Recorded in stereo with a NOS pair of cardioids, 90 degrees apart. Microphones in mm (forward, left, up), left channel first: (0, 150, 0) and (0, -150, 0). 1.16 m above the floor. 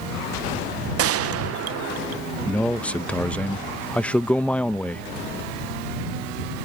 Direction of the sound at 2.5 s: 5° left.